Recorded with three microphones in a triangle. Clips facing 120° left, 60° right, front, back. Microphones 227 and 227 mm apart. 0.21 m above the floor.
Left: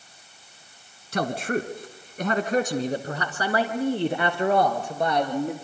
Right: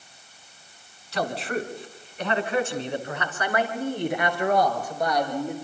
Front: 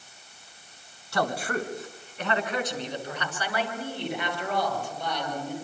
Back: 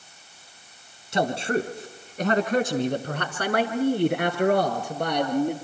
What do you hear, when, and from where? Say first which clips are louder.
1.1 s a man speaking: left 2 dB, back 4 dB; 120° left, 2 m; by 5.5 s 175° right, 4.5 m